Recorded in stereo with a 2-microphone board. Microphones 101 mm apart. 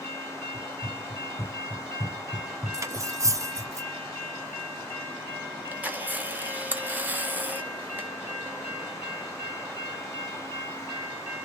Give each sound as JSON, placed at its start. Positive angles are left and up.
{"t": 0.5, "sound": "running footsteps", "side_deg": 55, "distance_m": 2.0}
{"t": 2.7, "sound": "cutlery clinking", "side_deg": -30, "distance_m": 0.5}
{"t": 5.7, "sound": "a camera shutter", "side_deg": -15, "distance_m": 0.9}